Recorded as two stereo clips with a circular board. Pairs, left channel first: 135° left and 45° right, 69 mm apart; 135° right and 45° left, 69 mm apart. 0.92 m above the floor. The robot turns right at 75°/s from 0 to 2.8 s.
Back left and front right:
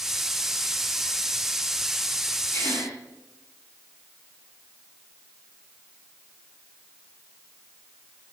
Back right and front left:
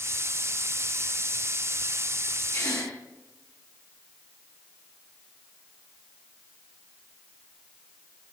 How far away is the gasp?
About 7.5 m.